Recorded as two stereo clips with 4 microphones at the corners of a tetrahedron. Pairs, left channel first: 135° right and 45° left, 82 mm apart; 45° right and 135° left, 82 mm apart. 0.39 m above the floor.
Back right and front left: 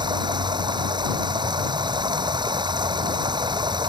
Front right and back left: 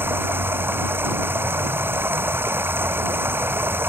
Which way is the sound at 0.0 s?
70° left.